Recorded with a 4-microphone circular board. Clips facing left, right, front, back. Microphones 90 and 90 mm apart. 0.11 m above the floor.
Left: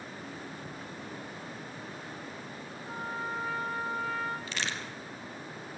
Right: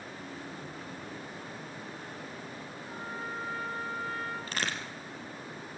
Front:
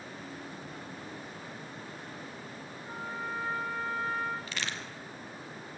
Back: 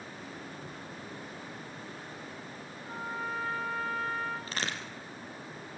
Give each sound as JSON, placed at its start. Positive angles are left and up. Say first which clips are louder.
{"t": 2.9, "sound": "a trumpet", "louder": "left 4 dB, back 1 dB", "azimuth_deg": 70, "distance_m": 7.0}
{"t": 4.5, "sound": "a crack", "louder": "right 1 dB, back 2 dB", "azimuth_deg": -130, "distance_m": 3.5}